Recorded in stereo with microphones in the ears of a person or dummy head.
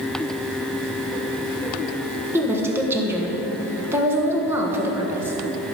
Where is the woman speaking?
10° right (ahead or behind), 1.2 m.